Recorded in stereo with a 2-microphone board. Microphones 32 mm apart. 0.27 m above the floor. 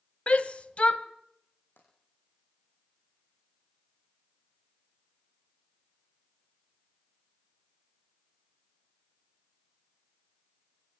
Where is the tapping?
85° left, 8 m.